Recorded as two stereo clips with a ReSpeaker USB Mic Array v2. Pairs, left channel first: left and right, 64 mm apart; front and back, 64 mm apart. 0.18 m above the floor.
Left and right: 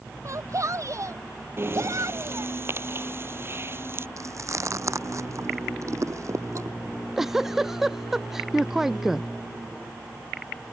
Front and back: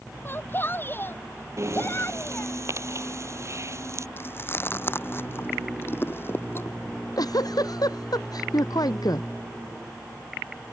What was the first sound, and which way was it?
A shout, 55° right.